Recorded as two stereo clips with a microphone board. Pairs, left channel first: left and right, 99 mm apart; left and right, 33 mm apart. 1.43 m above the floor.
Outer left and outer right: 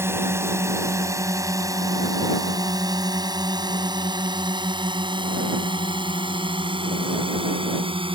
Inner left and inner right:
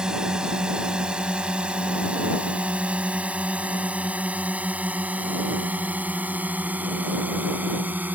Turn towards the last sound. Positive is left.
turn(degrees=-65)  # may be behind; listen again after turning